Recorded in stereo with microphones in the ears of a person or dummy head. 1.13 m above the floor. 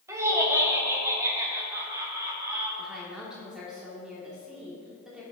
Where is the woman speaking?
5° right (ahead or behind), 2.5 m.